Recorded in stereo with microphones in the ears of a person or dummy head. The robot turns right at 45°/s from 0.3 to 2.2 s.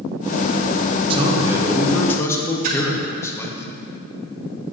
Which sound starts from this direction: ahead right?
A man speaking, at 1.1 s.